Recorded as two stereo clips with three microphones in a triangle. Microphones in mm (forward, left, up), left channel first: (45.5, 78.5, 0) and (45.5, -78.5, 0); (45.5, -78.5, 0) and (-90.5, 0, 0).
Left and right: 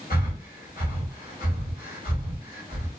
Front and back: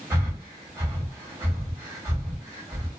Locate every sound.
0.1 s breathing: 80° left, 1.6 m